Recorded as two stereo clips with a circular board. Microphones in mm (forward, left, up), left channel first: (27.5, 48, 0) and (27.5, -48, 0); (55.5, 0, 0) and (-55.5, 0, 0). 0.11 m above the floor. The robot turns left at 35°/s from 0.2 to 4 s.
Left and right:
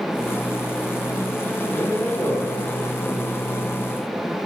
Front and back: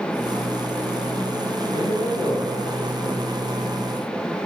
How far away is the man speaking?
About 3 m.